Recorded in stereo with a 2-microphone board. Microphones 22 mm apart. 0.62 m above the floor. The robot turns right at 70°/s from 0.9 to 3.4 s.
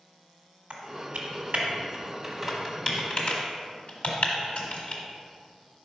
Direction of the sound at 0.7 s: 70° right (ahead or behind).